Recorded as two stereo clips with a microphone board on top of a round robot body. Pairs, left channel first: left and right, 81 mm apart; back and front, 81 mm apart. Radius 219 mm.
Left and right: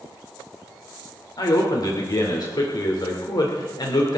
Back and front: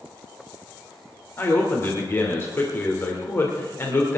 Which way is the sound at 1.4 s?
120° left.